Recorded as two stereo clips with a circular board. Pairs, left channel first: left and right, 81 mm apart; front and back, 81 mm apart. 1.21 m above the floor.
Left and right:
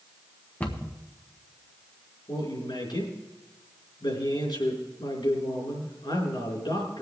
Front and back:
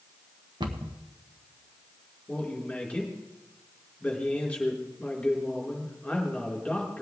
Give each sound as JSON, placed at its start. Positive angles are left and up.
{"t": 0.6, "sound": "a cupboard door", "azimuth_deg": 160, "distance_m": 1.2}
{"t": 2.3, "sound": "a man speaking", "azimuth_deg": 80, "distance_m": 4.5}